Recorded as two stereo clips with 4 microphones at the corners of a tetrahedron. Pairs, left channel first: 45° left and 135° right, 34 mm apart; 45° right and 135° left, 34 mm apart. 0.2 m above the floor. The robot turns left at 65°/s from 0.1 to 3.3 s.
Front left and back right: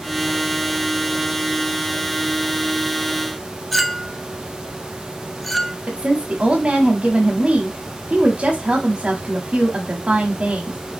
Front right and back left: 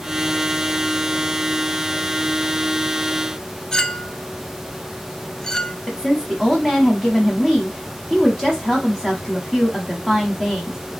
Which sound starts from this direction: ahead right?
A clink, at 3.7 s.